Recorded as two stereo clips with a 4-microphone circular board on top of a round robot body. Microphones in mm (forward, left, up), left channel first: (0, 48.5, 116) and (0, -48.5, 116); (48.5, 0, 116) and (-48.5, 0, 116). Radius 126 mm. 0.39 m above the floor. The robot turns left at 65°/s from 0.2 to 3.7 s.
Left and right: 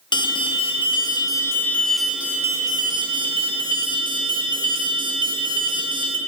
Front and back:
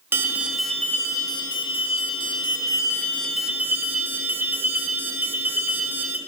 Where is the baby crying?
I don't hear a baby crying.